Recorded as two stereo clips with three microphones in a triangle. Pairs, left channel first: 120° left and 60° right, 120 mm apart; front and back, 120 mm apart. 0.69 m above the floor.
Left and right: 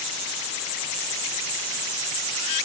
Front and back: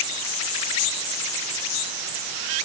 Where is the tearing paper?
I don't hear tearing paper.